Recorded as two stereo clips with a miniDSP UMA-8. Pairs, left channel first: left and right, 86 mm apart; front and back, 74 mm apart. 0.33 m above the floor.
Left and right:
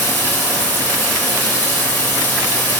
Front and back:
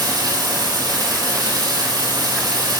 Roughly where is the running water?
Behind.